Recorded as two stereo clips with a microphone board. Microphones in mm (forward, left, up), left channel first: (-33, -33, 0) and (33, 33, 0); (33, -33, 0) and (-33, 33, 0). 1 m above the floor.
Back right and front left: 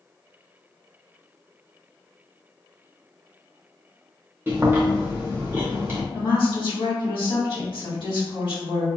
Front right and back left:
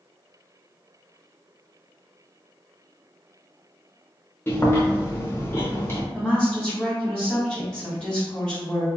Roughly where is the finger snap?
No finger snap in this recording.